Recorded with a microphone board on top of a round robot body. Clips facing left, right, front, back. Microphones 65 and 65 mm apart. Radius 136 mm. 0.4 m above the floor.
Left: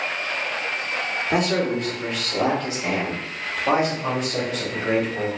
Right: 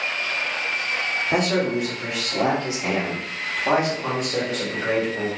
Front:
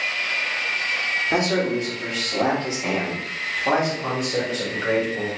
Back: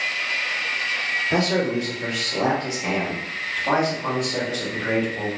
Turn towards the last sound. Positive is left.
turn(degrees=-55)